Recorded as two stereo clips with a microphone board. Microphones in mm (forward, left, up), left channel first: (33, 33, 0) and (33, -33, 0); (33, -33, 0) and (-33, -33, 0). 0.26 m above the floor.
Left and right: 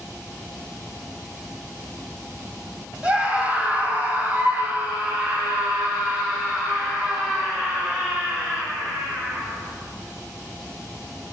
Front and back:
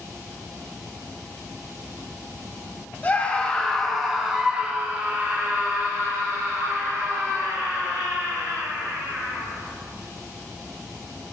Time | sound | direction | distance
3.0 | a scream | 40° right | 1.2 m